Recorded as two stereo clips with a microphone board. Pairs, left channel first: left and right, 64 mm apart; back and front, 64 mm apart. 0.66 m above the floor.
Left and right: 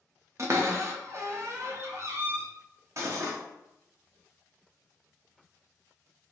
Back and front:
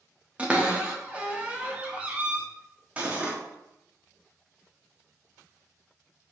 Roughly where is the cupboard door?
Ahead right.